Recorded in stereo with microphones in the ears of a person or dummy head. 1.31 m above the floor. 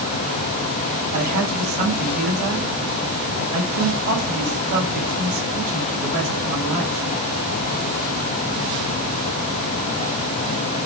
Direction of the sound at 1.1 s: 50° right (ahead or behind).